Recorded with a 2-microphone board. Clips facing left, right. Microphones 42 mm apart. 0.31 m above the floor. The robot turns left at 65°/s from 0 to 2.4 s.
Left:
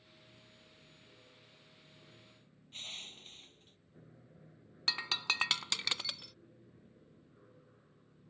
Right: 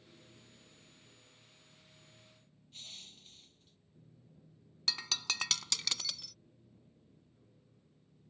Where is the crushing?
40° left (ahead or behind).